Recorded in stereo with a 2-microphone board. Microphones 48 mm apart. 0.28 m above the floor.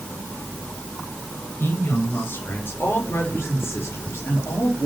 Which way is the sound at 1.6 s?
45° left (ahead or behind).